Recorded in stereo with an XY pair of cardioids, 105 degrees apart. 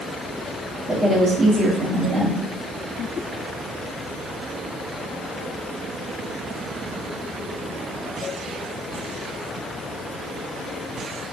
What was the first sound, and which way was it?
A woman speaking, 45° right.